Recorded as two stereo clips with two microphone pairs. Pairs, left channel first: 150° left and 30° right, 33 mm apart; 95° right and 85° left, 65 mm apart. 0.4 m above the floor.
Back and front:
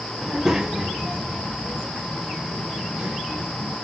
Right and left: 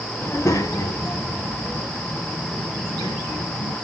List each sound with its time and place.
0.2 s a child speaking: 120° right, 0.6 m; by 3.8 s 90° right, 4 m